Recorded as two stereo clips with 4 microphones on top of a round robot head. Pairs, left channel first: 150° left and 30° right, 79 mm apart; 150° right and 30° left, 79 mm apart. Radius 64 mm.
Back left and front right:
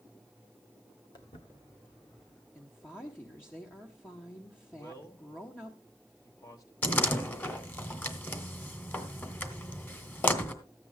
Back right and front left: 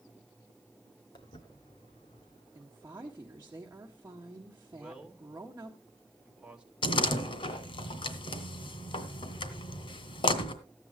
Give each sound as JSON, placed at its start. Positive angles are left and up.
{"t": 1.1, "sound": "footsteps", "azimuth_deg": 180, "distance_m": 1.9}
{"t": 2.5, "sound": "a woman speaking", "azimuth_deg": 85, "distance_m": 1.5}
{"t": 4.7, "sound": "a man speaking", "azimuth_deg": 110, "distance_m": 2.0}
{"t": 6.8, "sound": "a door slam", "azimuth_deg": -145, "distance_m": 1.9}